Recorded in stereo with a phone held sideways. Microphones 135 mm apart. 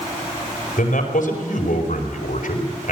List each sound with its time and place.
0.8 s a man speaking: 85° left, 5 m